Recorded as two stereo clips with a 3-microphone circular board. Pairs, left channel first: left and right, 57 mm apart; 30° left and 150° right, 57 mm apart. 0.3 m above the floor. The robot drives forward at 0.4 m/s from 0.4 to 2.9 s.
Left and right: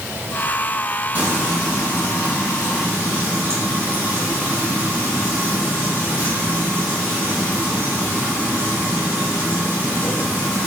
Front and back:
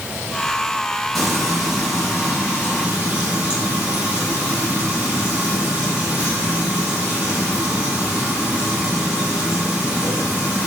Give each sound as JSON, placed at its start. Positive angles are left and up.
{"t": 1.1, "sound": "frying", "azimuth_deg": -55, "distance_m": 1.5}